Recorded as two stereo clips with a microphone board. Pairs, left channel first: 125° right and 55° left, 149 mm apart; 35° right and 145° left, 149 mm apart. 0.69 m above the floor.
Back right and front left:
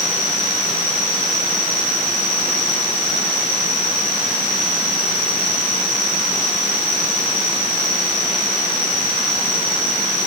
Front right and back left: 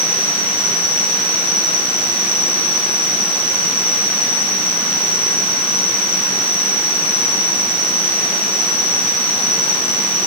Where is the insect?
Straight ahead, 6 m.